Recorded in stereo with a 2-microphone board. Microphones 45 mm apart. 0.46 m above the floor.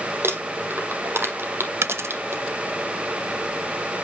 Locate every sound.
0.2 s crumpling: 60° right (ahead or behind), 3 m
1.8 s a dropped coin: 80° right, 0.7 m